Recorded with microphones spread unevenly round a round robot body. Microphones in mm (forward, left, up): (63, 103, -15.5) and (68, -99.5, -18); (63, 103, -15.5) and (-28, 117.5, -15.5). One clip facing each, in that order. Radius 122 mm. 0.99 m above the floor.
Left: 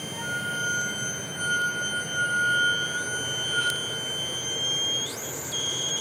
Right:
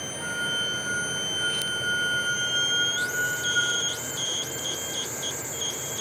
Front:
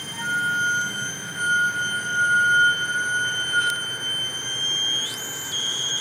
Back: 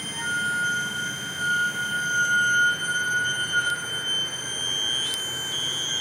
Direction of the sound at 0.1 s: 60° left.